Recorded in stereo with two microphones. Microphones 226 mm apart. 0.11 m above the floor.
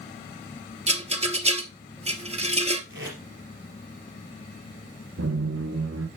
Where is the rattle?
30° right (ahead or behind), 0.8 m.